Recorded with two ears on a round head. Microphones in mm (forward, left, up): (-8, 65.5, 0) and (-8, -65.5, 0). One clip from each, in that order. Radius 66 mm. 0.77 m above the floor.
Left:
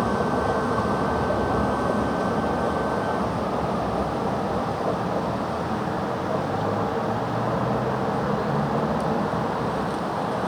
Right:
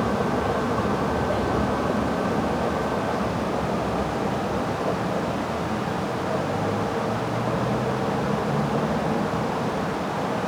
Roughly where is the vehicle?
Left.